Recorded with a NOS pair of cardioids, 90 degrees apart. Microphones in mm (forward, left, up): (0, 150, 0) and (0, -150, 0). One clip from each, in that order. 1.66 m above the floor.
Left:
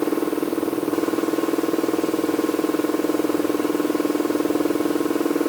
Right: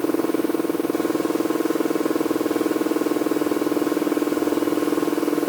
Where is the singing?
I don't hear singing.